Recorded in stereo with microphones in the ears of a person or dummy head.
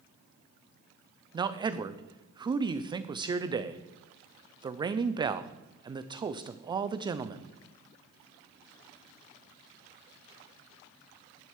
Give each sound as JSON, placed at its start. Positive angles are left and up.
{"t": 1.3, "sound": "a man speaking", "side_deg": -20, "distance_m": 0.8}